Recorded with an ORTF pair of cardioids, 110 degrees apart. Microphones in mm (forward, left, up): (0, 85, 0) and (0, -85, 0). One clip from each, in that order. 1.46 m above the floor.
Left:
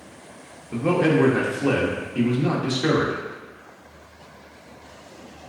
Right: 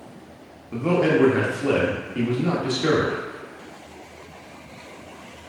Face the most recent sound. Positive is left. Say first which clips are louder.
# even
turn(degrees=10)